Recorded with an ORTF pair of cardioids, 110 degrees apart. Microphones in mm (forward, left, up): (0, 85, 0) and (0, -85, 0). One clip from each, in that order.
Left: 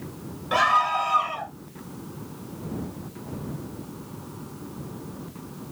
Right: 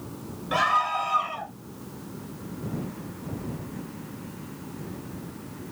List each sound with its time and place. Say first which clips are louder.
0.5 s a scream: left 3 dB; 15° left